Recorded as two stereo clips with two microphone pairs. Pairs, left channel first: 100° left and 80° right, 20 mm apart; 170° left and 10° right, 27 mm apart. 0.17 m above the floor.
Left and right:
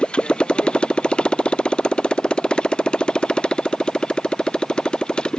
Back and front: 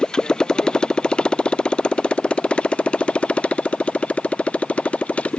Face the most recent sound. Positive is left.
turn(degrees=135)